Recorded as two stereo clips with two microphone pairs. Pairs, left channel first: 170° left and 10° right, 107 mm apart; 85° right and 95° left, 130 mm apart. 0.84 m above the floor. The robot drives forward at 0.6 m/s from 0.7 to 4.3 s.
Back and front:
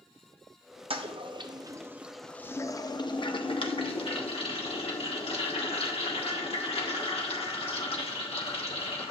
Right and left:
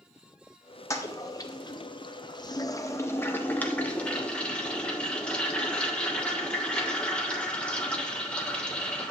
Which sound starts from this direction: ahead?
A toilet flushing, at 0.9 s.